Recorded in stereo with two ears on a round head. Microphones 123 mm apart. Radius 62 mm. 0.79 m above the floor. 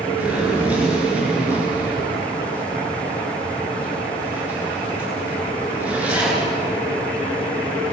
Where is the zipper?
10° right (ahead or behind), 9 m.